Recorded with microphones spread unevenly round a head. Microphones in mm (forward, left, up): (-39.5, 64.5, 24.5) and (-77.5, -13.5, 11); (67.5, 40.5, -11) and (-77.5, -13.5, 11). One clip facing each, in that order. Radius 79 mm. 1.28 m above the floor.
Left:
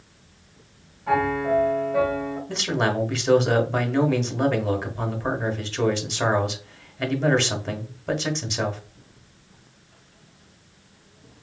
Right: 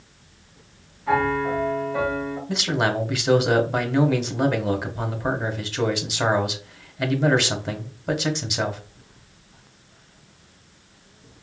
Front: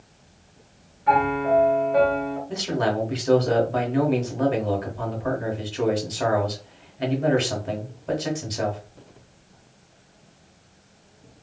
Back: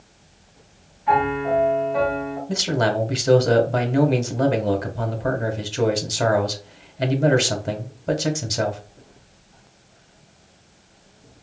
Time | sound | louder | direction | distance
1.1 | a piano | even, even | 5° right | 2 m
2.5 | a man speaking | right 1 dB, back 4 dB | 170° left | 0.9 m